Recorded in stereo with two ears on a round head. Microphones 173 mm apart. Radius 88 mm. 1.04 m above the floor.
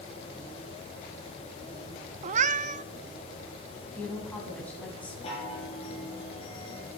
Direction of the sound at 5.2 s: 30° left (ahead or behind).